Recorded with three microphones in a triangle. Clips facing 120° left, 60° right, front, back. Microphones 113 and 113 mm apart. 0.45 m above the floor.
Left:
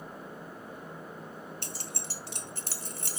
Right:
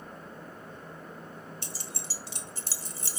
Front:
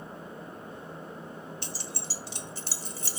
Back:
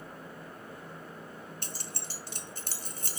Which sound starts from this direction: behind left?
Keys jangling, at 1.6 s.